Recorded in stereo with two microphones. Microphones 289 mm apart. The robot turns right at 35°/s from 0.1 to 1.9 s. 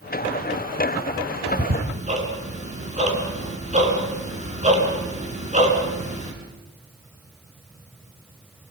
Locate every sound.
1.5 s ticking: 10° right (ahead or behind), 4 m; by 6.3 s 25° right (ahead or behind), 4 m